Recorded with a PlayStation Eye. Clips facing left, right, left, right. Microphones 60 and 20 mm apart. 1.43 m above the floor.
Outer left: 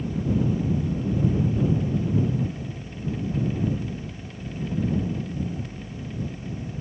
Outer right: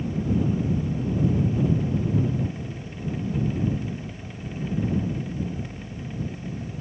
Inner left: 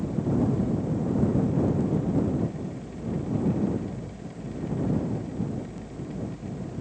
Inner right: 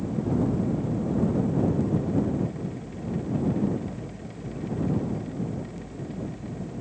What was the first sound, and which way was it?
Only background noise.